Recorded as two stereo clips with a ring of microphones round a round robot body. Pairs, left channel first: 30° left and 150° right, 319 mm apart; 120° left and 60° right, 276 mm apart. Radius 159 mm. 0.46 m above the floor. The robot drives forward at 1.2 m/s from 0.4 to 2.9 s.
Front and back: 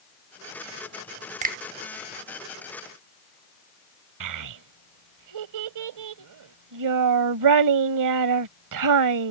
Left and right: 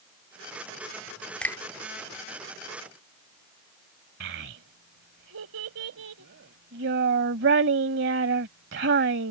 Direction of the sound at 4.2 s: 115° right.